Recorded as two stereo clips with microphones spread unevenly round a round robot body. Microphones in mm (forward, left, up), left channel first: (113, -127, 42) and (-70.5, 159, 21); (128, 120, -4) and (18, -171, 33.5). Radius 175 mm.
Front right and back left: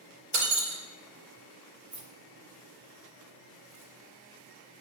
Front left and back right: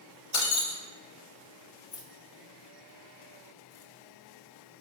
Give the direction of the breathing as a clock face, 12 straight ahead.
I don't hear breathing.